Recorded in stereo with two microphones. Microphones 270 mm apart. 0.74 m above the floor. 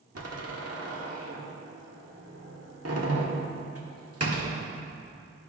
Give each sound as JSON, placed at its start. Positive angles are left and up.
{"t": 0.1, "sound": "a door slam", "side_deg": -60, "distance_m": 1.4}